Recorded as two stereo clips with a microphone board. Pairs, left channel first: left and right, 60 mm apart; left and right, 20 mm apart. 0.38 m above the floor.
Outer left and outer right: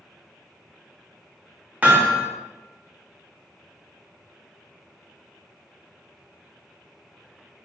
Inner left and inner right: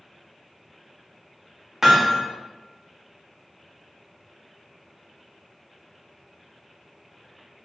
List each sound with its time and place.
1.8 s hammering: 25° right (ahead or behind), 0.9 m